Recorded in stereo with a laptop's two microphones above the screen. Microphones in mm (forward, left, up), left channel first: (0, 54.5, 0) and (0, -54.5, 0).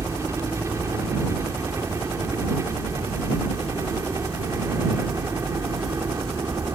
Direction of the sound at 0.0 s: 25° right (ahead or behind).